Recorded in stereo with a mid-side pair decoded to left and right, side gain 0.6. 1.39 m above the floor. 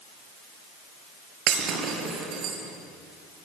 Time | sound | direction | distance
1.5 | breaking glass | 60° right | 5.5 m